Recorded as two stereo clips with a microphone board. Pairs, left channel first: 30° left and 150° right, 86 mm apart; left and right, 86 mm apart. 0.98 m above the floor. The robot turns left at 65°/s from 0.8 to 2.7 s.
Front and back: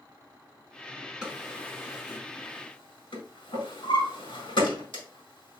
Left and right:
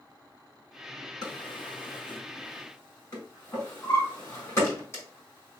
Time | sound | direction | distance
1.2 | a drawer | 130° left | 4.5 m